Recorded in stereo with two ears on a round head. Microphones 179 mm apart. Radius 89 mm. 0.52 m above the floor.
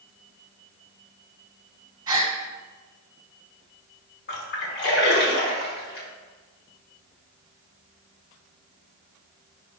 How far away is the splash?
About 1.1 m.